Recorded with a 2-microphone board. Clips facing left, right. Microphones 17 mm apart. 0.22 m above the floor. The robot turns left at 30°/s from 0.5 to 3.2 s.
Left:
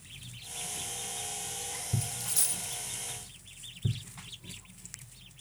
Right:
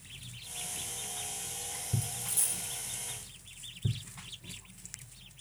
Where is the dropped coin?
85° left, 1.7 m; by 2.8 s 70° left (ahead or behind), 1.7 m.